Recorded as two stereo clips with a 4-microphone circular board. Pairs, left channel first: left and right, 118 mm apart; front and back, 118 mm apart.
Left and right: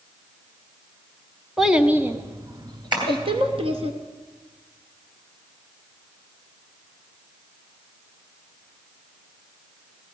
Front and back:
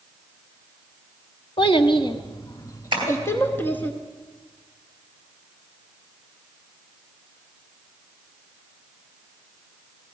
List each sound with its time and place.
1.6 s a child speaking: 5° right, 0.9 m; by 3.9 s 75° right, 1.5 m
2.9 s tapping: 135° right, 3.5 m